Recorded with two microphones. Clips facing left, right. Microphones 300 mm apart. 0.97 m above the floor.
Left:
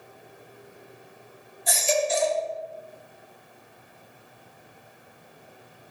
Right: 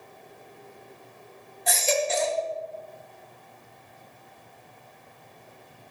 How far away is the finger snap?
No finger snap in this recording.